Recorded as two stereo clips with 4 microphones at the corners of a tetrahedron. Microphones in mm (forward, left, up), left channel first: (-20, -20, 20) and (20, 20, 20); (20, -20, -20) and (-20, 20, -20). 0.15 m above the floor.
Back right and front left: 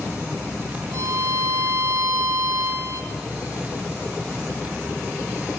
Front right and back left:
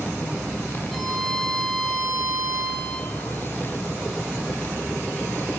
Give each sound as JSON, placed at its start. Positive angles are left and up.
{"t": 0.9, "sound": "a violin", "azimuth_deg": 40, "distance_m": 9.0}